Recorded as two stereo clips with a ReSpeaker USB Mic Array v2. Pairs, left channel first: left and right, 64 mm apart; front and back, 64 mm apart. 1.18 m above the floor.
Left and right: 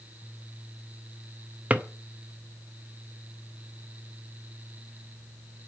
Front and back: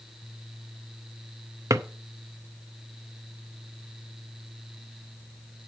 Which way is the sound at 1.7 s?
155° right.